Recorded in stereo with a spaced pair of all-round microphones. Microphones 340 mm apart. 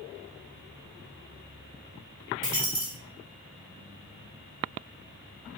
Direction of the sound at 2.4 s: 35° right (ahead or behind).